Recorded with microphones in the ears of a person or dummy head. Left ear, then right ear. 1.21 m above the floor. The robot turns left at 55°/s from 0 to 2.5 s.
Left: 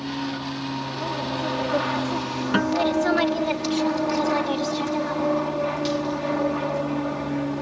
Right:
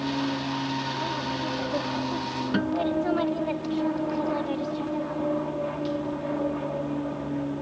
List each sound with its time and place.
0.0 s an aircraft: 140° right; by 7.6 s 80° left
2.5 s a guitar: 40° left (ahead or behind)